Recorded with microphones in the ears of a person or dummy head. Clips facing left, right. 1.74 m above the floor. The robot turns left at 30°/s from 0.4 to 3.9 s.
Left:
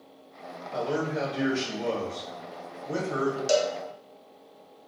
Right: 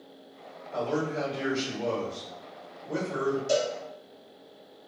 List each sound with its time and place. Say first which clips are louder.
0.7 s a man speaking: even; 170° left, 1.3 m; by 3.4 s 90° left, 1.3 m
3.5 s a cowbell: left 4 dB; 70° left (ahead or behind), 0.7 m; by 3.7 s 75° left (ahead or behind), 0.7 m